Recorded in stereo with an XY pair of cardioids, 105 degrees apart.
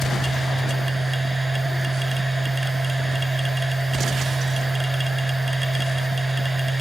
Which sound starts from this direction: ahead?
A machine running, at 0.0 s.